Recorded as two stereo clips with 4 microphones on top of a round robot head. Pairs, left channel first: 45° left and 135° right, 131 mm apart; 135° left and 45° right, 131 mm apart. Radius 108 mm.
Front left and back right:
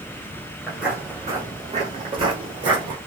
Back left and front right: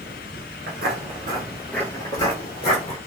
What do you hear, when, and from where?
0.7 s footsteps: 40° right, 1.2 m; by 3.0 s 170° left, 1.8 m